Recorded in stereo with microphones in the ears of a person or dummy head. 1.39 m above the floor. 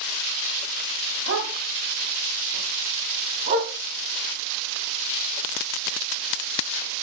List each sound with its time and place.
1.3 s a dog barking: 65° right (ahead or behind), 2.5 m; by 3.7 s 50° right (ahead or behind), 3.5 m